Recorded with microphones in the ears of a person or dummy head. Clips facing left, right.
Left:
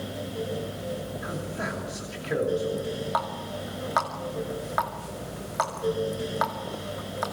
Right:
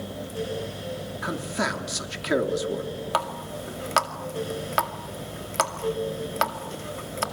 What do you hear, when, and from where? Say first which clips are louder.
1.2 s a man speaking: right 4 dB; 75° right (ahead or behind), 3 m
3.1 s a running tap: right 1 dB; 45° right (ahead or behind), 2 m